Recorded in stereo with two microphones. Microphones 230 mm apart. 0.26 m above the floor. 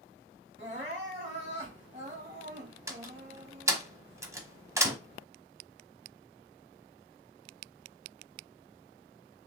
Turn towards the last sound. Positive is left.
turn(degrees=-15)  # may be behind; listen again after turning